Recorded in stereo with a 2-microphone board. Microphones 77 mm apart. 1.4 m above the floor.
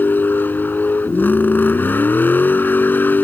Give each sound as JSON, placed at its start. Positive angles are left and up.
{"t": 0.0, "sound": "a vehicle", "side_deg": 25}